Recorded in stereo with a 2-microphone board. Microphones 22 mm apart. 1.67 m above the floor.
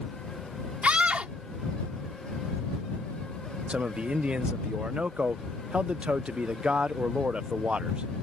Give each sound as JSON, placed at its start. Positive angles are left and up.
{"t": 0.8, "sound": "a scream", "side_deg": -65}
{"t": 3.7, "sound": "a man speaking", "side_deg": -65}